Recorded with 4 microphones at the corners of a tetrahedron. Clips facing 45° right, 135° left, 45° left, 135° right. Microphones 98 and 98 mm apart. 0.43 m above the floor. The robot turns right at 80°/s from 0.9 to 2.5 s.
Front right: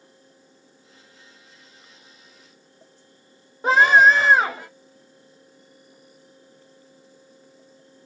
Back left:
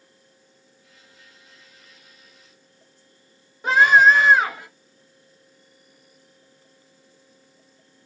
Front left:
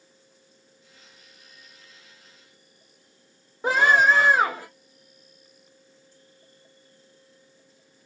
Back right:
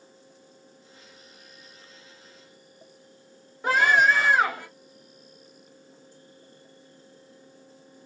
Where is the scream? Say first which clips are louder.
Even, front left 1 dB; 10° right, 1.3 m.